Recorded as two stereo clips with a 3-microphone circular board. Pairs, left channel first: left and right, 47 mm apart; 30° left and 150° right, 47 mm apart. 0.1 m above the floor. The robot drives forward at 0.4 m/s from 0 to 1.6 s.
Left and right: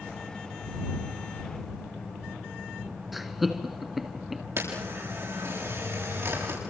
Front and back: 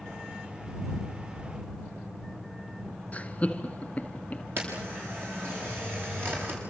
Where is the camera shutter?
115° right, 8.5 m.